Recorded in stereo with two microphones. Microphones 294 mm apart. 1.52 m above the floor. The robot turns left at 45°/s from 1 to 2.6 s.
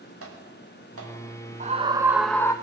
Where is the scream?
150° right, 0.5 m; by 2.5 s 165° left, 0.5 m.